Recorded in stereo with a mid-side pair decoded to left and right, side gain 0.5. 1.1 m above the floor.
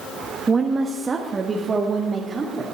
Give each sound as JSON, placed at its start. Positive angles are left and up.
{"t": 0.5, "sound": "a woman speaking", "azimuth_deg": -35, "distance_m": 0.8}